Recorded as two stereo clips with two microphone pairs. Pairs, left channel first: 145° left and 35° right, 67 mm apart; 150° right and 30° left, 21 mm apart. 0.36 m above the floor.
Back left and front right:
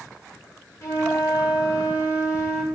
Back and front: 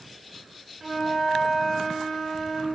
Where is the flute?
110° left, 2.5 m.